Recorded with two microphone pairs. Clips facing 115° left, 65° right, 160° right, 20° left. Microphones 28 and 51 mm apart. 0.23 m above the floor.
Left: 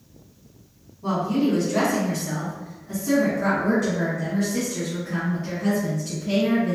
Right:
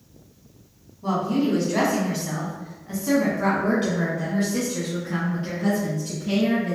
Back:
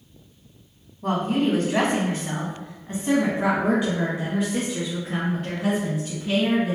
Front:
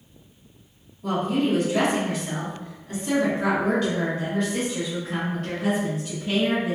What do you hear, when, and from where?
1.0 s a woman speaking: 150° right, 1.5 m; by 6.8 s 65° right, 3 m